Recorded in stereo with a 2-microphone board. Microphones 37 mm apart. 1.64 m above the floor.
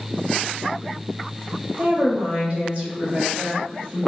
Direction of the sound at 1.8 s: 35° right (ahead or behind).